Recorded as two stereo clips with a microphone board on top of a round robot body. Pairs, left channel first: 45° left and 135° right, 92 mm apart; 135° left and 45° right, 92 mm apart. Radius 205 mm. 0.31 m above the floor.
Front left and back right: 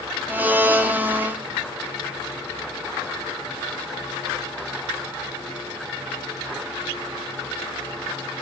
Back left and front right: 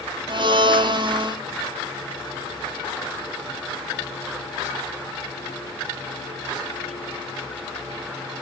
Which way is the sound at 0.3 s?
65° right.